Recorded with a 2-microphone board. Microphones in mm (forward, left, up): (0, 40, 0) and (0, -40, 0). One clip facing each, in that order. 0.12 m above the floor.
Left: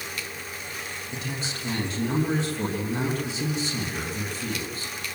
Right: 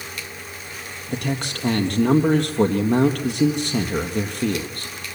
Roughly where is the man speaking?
Right.